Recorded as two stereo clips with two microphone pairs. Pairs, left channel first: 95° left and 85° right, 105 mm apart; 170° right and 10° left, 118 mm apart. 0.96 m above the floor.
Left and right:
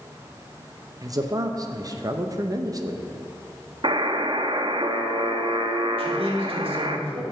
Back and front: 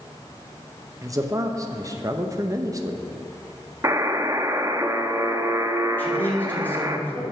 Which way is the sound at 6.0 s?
100° right.